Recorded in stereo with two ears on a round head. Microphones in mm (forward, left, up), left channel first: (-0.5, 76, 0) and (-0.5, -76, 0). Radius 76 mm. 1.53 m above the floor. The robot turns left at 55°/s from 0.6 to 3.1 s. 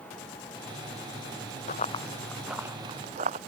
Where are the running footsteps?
45° left (ahead or behind); by 3.4 s 40° right (ahead or behind).